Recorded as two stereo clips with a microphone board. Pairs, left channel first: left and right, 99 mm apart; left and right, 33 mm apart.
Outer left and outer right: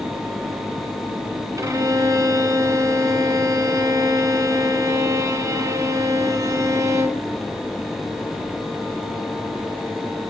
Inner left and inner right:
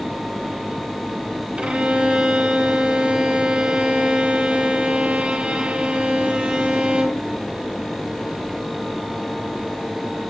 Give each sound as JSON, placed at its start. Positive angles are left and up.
{"t": 1.6, "sound": "a violin", "side_deg": -30, "distance_m": 0.8}